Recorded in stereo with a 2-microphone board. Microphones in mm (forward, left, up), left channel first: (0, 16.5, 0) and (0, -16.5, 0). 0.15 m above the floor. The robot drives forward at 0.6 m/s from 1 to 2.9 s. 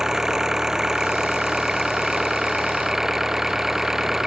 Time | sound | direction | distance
0.0 | an engine running | 15° right (ahead or behind) | ?